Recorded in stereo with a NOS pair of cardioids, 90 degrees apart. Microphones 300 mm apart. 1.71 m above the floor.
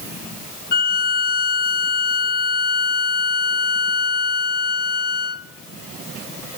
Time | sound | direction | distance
0.7 | a violin | 35° left | 0.9 m